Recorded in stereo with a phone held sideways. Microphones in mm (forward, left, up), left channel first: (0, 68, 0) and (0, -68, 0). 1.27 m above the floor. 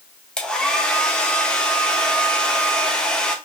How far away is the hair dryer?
About 0.8 m.